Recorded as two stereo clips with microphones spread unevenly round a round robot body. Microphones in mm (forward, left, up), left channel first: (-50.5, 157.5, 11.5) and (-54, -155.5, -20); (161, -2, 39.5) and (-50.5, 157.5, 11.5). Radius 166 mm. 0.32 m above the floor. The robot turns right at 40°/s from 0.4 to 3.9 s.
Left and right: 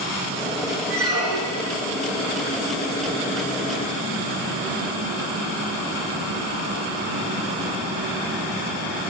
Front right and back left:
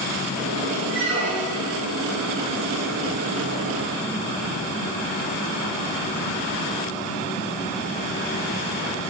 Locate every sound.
0.9 s a squeak: 140° right, 3 m; by 1.8 s 105° right, 3 m